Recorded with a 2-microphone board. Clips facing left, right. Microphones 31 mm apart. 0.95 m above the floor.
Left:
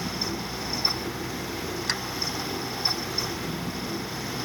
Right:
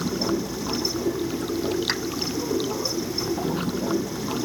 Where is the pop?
10° right (ahead or behind).